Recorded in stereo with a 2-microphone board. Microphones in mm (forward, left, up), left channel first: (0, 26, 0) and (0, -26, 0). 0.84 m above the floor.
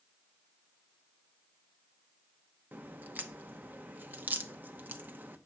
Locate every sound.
2.7 s a crack: 35° right (ahead or behind), 0.8 m